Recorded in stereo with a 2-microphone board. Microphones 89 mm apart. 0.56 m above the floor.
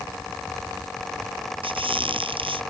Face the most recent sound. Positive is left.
turn(degrees=-75)  # may be behind; listen again after turning